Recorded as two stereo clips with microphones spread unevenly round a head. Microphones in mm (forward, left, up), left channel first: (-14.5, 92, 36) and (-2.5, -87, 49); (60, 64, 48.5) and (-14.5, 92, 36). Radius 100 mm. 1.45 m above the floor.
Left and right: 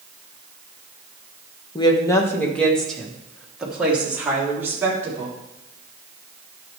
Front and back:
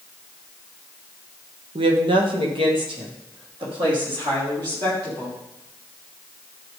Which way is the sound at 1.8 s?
160° left.